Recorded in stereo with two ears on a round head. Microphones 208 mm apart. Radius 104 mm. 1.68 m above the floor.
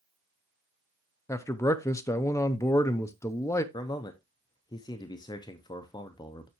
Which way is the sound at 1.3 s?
15° left (ahead or behind).